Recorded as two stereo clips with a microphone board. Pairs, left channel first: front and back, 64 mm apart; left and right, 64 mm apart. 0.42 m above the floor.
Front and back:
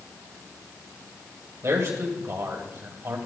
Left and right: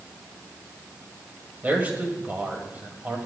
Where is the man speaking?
150° right, 1.9 m.